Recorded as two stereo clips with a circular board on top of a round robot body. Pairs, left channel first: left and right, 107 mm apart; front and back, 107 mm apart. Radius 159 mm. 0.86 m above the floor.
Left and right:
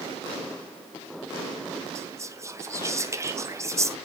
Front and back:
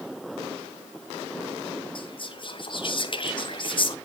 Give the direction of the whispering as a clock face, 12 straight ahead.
1 o'clock.